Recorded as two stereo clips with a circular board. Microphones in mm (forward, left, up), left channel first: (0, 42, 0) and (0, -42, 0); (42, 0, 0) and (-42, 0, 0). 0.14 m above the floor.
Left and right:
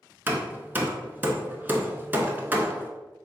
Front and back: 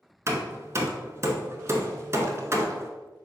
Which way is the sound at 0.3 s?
145° right.